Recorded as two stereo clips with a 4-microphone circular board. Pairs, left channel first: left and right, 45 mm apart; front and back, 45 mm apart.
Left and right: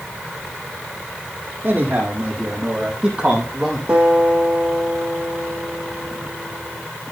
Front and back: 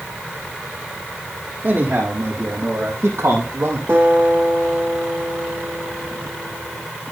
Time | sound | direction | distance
1.6 | a man speaking | 140° right | 5 m
3.9 | a guitar | 150° right | 5 m